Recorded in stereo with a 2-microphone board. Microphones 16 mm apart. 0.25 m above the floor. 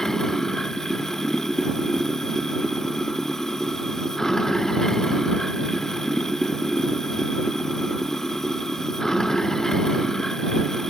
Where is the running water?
35° left (ahead or behind).